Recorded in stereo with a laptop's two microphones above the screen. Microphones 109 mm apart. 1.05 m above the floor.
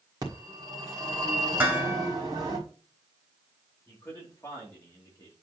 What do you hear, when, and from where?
0.2 s a phone ringing: 40° right (ahead or behind), 1.6 m
1.6 s dishes clattering: 20° right (ahead or behind), 1.3 m
3.9 s a man speaking: 30° left (ahead or behind), 2 m